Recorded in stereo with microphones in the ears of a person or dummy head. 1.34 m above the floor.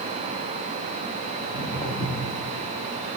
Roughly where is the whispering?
I don't hear whispering.